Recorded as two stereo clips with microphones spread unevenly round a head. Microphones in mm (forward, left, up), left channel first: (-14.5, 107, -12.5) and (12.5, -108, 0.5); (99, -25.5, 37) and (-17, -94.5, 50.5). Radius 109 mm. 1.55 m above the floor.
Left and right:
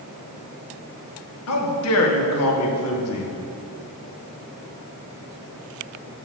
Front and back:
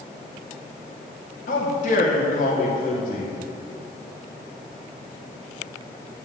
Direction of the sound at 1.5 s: 75° left.